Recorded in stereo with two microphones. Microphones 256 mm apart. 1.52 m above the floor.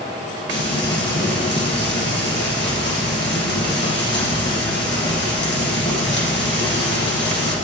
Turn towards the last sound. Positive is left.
turn(degrees=45)  # may be behind; listen again after turning